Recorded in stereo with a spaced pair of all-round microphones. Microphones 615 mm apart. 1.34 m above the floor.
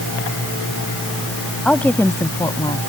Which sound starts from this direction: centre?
A woman speaking, at 1.6 s.